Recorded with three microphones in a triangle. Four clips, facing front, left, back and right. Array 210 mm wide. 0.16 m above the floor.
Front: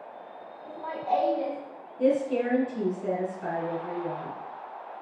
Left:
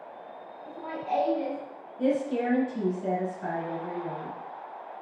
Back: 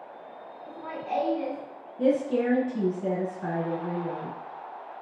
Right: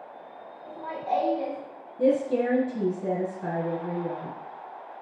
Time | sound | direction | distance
0.7 | laughter | 35° right | 1.2 m
2.0 | a woman speaking | 155° right | 1.5 m